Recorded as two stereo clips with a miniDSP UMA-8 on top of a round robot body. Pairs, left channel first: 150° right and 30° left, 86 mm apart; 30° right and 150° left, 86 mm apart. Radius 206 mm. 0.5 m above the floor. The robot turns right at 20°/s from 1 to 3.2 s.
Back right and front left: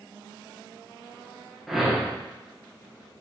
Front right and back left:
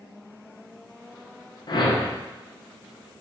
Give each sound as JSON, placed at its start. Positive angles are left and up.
{"t": 1.7, "sound": "a whoosh", "azimuth_deg": -60, "distance_m": 0.8}